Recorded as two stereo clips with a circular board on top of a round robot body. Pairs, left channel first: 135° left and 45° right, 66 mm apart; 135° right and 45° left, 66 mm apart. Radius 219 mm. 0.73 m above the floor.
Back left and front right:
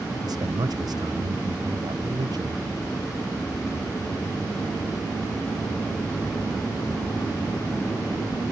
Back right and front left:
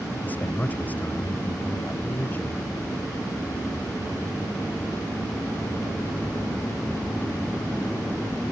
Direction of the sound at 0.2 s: 70° right.